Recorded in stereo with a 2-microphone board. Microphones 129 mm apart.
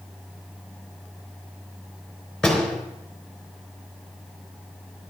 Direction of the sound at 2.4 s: Centre (ahead or behind).